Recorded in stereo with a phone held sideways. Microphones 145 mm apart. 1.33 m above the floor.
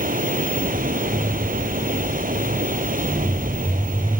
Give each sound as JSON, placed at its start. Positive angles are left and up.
{"t": 0.0, "sound": "running water", "side_deg": -85}